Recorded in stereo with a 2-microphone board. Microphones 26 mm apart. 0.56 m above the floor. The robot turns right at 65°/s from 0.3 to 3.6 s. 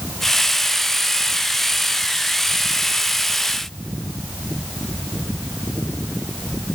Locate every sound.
Only background noise.